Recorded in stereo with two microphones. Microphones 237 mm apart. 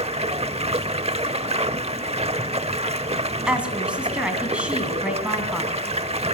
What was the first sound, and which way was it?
Running water, 25° right (ahead or behind).